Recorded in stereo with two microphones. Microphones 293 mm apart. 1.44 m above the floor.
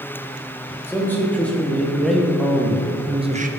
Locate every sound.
0.9 s a man speaking: 5° left (ahead or behind), 3.5 m; by 3.5 s 30° right (ahead or behind), 1.0 m